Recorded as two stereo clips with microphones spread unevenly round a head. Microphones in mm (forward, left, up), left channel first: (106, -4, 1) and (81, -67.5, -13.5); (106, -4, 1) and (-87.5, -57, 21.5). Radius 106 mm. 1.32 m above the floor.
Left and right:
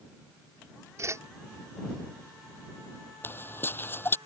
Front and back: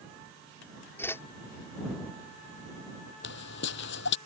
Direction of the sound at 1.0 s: 65° right.